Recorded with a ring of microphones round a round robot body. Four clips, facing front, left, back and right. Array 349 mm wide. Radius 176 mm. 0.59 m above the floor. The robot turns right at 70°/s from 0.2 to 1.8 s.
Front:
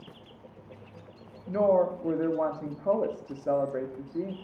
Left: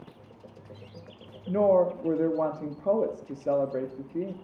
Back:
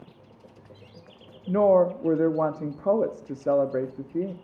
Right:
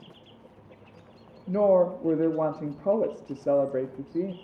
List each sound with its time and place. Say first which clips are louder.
1.5 s a woman speaking: right 1 dB, back 4 dB; straight behind, 0.7 m; by 4.3 s 160° right, 0.7 m